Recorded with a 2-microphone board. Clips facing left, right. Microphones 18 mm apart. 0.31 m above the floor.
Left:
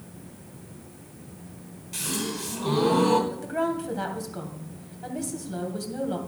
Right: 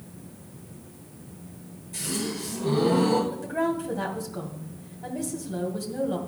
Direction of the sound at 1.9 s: 60° left (ahead or behind).